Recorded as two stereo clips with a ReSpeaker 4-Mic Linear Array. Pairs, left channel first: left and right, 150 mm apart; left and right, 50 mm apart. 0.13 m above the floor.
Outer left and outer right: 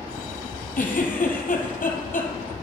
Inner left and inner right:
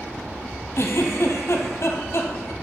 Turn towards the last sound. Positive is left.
turn(degrees=70)  # may be behind; listen again after turning